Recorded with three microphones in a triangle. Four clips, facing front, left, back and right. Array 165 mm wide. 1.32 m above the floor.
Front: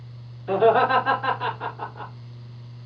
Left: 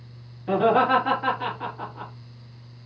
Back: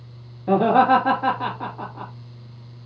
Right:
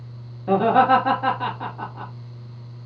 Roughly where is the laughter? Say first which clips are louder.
Right 3 dB, back 2 dB; behind right.